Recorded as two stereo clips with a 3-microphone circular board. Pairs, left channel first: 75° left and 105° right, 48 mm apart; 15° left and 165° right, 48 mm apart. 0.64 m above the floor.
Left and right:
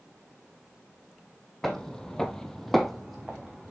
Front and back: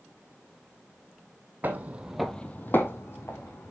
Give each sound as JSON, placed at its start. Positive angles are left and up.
{"t": 1.6, "sound": "footsteps", "azimuth_deg": 150, "distance_m": 1.1}